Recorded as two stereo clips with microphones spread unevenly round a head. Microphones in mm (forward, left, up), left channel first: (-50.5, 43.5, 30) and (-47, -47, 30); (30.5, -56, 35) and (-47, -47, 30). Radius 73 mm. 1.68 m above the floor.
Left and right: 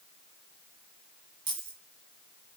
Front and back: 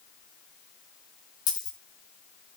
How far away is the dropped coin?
About 7 m.